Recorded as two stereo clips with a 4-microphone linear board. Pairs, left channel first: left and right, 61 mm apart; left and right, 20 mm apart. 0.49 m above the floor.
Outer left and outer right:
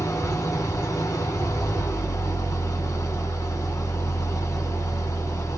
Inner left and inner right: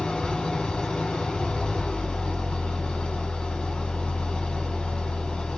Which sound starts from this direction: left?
An engine running, at 0.0 s.